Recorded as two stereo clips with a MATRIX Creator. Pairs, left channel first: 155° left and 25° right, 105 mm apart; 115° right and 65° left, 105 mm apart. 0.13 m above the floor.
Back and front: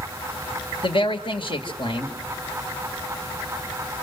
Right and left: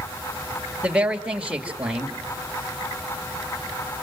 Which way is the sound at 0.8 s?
145° left.